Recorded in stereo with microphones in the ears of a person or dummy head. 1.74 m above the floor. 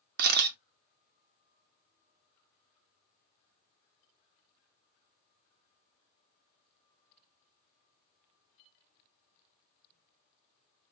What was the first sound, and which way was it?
A camera shutter, 55° right (ahead or behind).